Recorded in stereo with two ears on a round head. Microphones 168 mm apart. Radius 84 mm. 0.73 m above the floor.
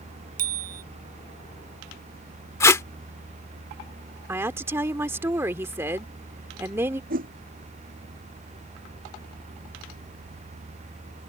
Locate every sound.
0.4 s a bicycle bell: 50° right (ahead or behind)
2.6 s tape being pulled: 15° left (ahead or behind)
4.3 s a woman speaking: 15° right (ahead or behind)
7.1 s a whoosh: 50° right (ahead or behind)